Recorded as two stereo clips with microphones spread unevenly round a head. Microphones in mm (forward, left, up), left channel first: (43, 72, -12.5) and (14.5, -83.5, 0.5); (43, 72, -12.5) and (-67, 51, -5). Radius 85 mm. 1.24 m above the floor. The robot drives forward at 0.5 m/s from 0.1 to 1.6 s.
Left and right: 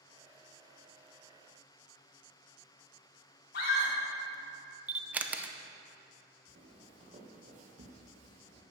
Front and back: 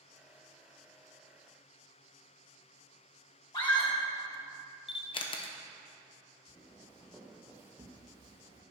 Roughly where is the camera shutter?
Ahead.